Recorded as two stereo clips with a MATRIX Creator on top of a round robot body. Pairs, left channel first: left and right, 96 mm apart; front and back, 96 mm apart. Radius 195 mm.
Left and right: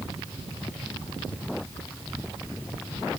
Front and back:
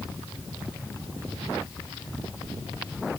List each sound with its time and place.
Only background noise.